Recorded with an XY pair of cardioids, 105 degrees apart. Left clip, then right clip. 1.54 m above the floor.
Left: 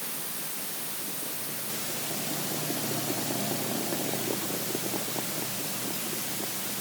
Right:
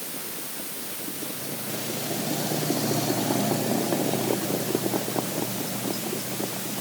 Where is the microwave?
No microwave in this recording.